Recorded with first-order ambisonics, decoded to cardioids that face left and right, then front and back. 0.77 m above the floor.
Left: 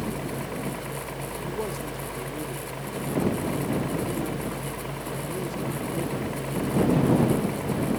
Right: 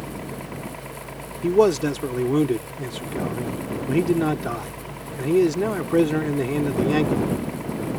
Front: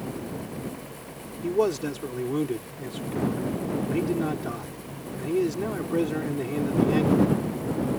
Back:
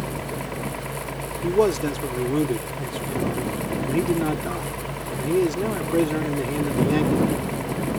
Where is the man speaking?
105° right.